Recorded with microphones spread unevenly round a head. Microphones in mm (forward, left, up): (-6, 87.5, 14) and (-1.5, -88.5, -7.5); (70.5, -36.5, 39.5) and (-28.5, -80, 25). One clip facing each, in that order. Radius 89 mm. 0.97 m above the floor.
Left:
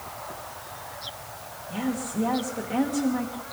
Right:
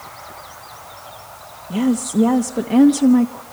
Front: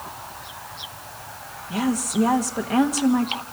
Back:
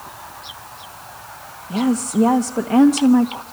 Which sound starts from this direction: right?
A woman speaking, at 1.7 s.